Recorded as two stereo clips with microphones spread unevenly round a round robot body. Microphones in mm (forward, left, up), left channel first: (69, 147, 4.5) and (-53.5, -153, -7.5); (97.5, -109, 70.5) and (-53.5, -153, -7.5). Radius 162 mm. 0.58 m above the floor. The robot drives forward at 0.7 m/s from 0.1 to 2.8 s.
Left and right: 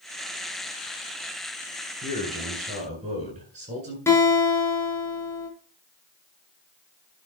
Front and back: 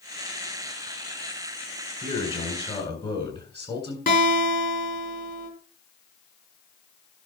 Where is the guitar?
15° right, 5 m.